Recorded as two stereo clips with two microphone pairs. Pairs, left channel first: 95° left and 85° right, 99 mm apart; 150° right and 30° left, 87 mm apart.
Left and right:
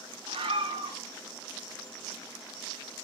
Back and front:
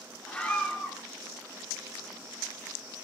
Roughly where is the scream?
Right.